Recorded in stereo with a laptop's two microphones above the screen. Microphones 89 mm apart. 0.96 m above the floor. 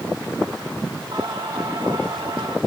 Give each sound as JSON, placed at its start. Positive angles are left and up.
{"t": 1.1, "sound": "singing", "side_deg": -65, "distance_m": 2.5}